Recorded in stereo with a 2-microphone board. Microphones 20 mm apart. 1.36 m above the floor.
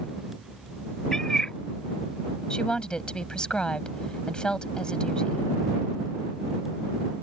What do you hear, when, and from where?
1.1 s a cat meowing: 35° left (ahead or behind)
2.5 s a woman speaking: 50° left (ahead or behind)